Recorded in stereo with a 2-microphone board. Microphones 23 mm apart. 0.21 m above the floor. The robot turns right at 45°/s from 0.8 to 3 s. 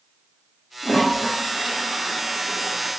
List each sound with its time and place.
0.8 s a toilet flushing: 140° left, 1.5 m; by 2.9 s 125° right, 1.5 m